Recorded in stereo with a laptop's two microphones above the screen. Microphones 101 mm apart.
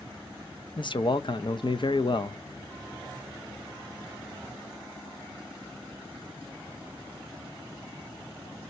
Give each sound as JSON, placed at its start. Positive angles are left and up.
{"t": 0.8, "sound": "a man speaking", "side_deg": 55, "distance_m": 0.6}